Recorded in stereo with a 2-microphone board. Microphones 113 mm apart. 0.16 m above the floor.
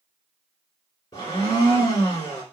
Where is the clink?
No clink in this recording.